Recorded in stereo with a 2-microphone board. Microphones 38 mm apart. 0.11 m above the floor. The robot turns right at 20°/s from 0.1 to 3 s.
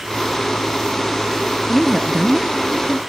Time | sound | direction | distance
1.7 | a woman speaking | centre (ahead or behind) | 1.5 m